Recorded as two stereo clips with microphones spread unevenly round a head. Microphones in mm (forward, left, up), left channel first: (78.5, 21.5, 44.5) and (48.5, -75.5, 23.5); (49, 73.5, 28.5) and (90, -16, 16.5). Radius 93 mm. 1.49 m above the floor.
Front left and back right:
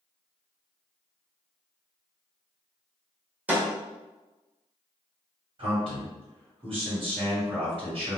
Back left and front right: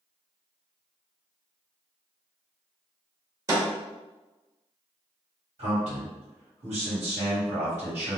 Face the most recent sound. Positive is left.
turn(degrees=-85)